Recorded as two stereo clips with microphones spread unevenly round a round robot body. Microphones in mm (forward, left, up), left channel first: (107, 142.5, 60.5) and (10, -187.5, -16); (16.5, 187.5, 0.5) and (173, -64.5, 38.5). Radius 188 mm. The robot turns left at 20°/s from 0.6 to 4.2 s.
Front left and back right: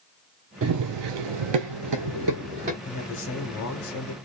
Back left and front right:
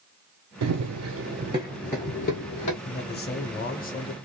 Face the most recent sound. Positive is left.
turn(degrees=85)